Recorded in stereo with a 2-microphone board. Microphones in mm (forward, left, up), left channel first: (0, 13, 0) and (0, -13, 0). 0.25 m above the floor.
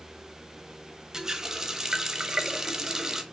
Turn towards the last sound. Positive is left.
turn(degrees=-25)  # may be behind; listen again after turning